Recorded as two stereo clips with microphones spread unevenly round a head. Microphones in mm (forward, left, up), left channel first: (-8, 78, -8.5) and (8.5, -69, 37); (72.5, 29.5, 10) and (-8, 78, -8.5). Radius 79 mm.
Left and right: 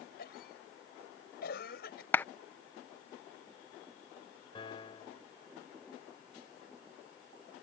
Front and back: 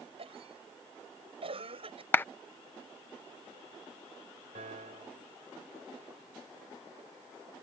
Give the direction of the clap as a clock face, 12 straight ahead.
12 o'clock.